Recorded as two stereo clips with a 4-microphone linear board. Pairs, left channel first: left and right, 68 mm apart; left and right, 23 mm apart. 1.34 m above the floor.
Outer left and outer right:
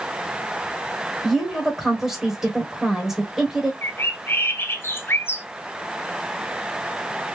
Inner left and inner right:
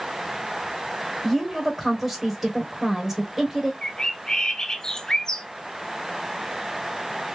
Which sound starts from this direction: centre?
A woman speaking, at 1.2 s.